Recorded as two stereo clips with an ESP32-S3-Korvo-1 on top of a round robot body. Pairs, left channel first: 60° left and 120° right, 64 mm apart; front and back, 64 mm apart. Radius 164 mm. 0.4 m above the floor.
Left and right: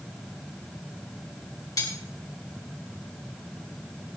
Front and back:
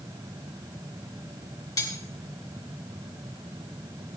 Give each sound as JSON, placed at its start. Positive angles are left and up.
{"t": 1.8, "sound": "cutlery clinking", "azimuth_deg": 30, "distance_m": 2.5}